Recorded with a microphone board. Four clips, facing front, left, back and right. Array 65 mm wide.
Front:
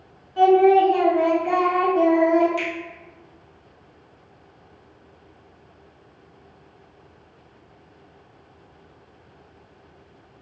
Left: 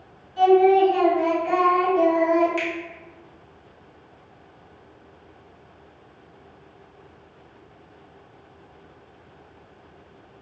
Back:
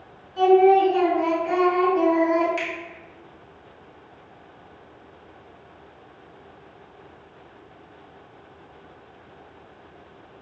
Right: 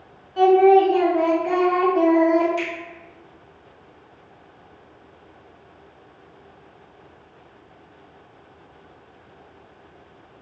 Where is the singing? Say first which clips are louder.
Right 2 dB, front 1 dB; 70° right, 1.0 m.